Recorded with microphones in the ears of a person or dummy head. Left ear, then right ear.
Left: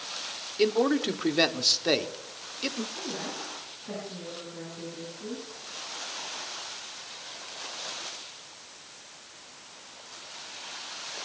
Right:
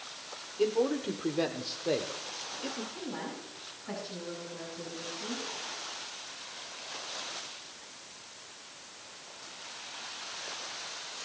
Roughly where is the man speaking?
Left.